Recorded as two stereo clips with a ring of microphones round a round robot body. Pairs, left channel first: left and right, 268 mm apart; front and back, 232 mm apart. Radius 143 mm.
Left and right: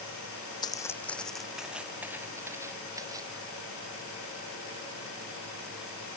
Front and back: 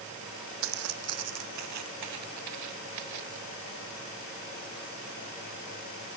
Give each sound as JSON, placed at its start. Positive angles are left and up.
{"t": 0.6, "sound": "footsteps", "azimuth_deg": 165}